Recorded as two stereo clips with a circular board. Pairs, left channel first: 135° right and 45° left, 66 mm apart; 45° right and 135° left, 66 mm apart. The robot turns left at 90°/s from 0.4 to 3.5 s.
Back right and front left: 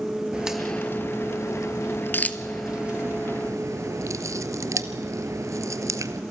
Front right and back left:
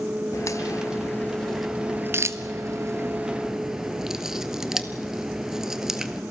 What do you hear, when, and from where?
0.3 s a crack: 25° right, 1.0 m; by 6.2 s 55° left, 1.0 m